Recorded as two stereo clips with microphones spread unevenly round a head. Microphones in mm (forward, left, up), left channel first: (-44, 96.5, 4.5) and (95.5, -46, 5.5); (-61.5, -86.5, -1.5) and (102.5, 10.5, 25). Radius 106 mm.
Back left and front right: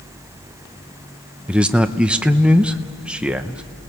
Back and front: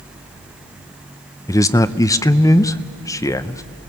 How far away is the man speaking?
About 0.6 m.